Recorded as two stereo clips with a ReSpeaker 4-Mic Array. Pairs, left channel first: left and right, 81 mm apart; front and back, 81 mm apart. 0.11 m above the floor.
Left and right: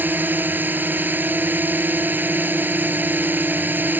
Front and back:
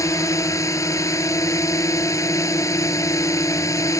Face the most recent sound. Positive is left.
turn(degrees=-30)